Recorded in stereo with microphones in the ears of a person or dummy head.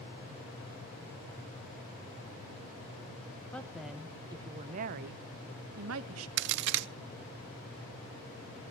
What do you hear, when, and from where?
3.5 s a woman speaking: 10° left (ahead or behind), 1.2 m; by 6.3 s 80° right, 1.6 m
6.4 s a crack: 65° right (ahead or behind), 0.7 m